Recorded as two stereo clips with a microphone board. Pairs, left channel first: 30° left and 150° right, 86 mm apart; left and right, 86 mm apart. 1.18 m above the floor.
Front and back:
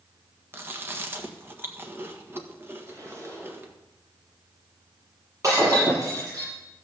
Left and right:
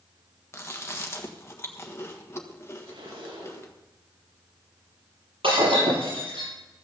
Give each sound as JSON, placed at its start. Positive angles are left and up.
{"t": 0.5, "sound": "chewing", "azimuth_deg": 145, "distance_m": 1.5}
{"t": 2.9, "sound": "a zipper", "azimuth_deg": -95, "distance_m": 4.0}
{"t": 5.4, "sound": "breaking glass", "azimuth_deg": -100, "distance_m": 7.5}